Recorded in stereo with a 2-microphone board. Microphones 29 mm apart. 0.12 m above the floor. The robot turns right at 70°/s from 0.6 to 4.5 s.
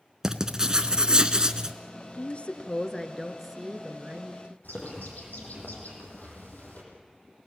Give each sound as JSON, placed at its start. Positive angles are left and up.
{"t": 0.2, "sound": "writing", "side_deg": -20, "distance_m": 1.2}
{"t": 2.1, "sound": "a woman speaking", "azimuth_deg": 100, "distance_m": 1.7}
{"t": 4.6, "sound": "a bird", "side_deg": 75, "distance_m": 6.0}